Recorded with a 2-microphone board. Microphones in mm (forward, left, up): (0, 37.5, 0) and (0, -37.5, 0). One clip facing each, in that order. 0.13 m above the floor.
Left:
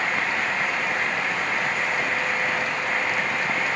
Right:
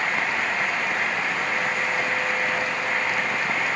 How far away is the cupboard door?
I don't hear a cupboard door.